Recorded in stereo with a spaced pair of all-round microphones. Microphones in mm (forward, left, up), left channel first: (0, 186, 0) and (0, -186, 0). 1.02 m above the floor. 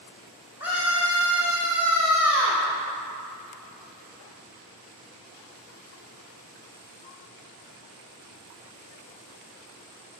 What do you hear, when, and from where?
0.6 s a scream: 30° left (ahead or behind), 1.5 m